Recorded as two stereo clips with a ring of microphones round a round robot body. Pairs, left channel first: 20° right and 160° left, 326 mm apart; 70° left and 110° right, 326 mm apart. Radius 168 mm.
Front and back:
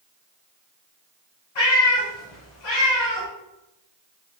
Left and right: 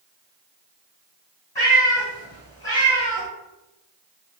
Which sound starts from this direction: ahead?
A cat meowing, at 1.6 s.